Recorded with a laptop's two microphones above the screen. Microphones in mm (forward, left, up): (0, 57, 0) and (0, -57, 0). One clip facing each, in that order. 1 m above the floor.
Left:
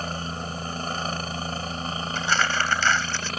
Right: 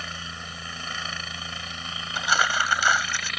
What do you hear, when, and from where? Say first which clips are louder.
0.0 s a helicopter: left 7 dB; 40° left (ahead or behind)
2.1 s crumpling: right 1 dB; 15° right (ahead or behind)